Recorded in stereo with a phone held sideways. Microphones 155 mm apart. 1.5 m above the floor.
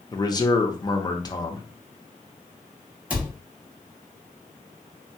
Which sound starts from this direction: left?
A man speaking, at 0.1 s.